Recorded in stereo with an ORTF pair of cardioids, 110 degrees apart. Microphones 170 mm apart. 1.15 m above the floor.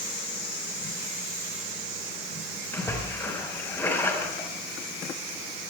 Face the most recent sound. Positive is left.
turn(degrees=15)